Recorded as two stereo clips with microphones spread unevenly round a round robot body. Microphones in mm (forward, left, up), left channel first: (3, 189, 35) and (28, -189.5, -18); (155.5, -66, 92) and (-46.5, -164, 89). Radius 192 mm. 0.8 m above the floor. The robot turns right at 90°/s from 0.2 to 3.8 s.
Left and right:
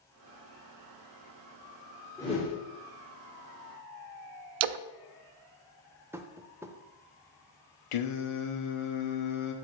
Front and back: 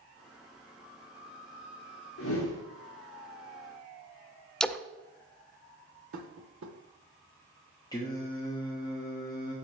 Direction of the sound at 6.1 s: 175° right.